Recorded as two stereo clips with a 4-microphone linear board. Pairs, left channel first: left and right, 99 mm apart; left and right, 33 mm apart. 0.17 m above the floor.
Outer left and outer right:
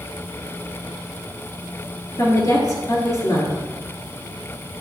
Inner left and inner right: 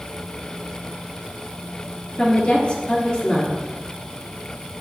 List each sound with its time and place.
2.2 s a woman speaking: 35° left (ahead or behind), 2.5 m